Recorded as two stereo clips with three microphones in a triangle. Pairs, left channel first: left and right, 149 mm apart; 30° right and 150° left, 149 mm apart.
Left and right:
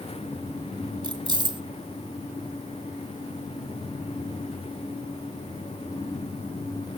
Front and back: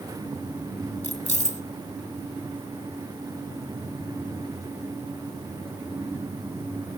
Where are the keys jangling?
40° right, 1.1 m.